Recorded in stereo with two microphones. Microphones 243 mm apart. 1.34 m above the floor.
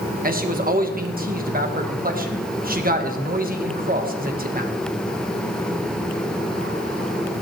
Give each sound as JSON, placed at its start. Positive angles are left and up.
{"t": 0.2, "sound": "a man speaking", "side_deg": -35, "distance_m": 1.4}